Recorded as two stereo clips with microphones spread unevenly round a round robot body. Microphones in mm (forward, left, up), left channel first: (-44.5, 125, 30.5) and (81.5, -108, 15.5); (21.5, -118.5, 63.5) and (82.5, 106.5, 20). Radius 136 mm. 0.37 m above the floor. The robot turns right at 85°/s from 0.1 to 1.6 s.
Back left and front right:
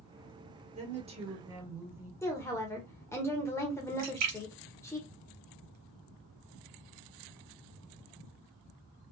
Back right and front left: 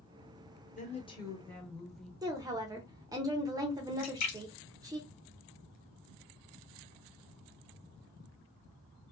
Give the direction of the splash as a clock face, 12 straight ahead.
3 o'clock.